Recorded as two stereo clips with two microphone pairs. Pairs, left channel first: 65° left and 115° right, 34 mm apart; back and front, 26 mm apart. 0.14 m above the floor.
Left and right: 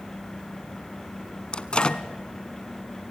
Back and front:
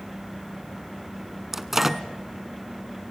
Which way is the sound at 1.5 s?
65° left.